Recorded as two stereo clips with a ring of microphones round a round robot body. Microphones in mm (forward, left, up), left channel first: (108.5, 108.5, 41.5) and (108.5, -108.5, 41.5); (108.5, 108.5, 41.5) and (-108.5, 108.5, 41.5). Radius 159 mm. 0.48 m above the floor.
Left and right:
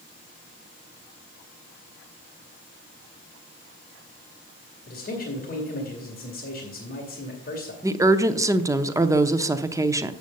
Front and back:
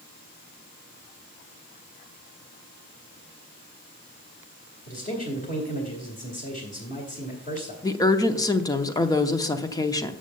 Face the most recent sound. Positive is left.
turn(degrees=-40)